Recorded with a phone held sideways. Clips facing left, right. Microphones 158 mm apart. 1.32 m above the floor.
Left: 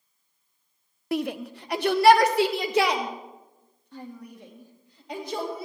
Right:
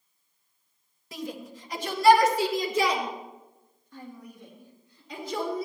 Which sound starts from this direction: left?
A shout, at 1.1 s.